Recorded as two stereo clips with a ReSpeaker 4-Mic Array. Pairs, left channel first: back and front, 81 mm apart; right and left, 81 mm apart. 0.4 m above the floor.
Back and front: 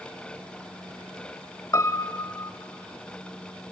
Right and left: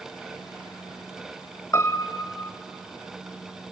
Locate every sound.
1.7 s a piano: 140° right, 0.6 m